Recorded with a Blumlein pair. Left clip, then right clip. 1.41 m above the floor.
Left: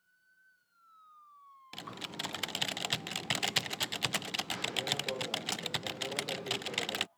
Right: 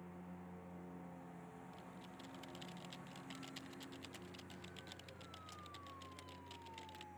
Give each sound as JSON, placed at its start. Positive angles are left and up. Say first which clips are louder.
{"t": 0.0, "sound": "a lawn mower", "louder": "right 10 dB", "azimuth_deg": -45}
{"t": 1.7, "sound": "typing on a keyboard", "louder": "left 14 dB", "azimuth_deg": 50}